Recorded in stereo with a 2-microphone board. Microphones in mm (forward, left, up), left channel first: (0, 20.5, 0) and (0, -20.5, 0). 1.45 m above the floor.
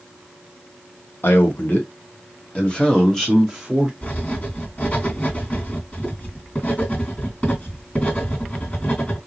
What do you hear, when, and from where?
1.2 s a man speaking: 60° left (ahead or behind), 1.4 m; by 3.9 s 5° right (ahead or behind), 1.2 m
4.0 s writing: 35° left (ahead or behind), 2.5 m